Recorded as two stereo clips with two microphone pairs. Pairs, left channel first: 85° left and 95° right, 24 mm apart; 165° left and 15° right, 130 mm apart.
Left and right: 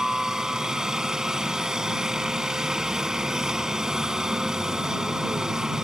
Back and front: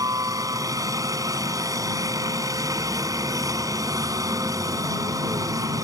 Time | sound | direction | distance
0.0 | a helicopter | 55° right | ?